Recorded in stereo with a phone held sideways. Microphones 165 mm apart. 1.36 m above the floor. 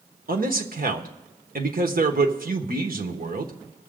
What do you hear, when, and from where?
0.3 s a man speaking: 65° right (ahead or behind), 1.3 m